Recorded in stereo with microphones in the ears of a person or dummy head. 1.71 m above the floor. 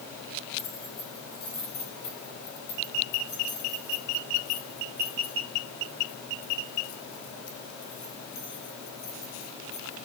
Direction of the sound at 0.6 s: 50° left (ahead or behind).